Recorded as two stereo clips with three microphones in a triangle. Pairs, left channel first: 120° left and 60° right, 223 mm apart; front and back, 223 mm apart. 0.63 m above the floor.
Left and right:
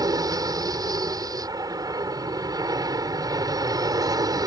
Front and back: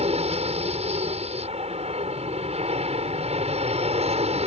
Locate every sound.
0.0 s an aircraft: 130° right